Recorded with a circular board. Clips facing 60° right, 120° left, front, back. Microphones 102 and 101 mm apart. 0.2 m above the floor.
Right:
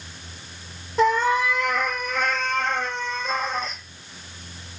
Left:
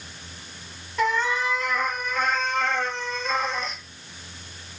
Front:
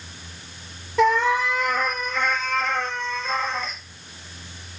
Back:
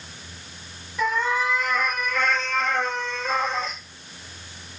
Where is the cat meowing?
5° right, 0.7 m; by 3.8 s 110° right, 1.2 m.